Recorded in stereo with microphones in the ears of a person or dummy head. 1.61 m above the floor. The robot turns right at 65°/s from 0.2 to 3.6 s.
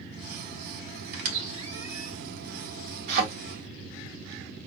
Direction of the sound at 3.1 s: 55° right (ahead or behind).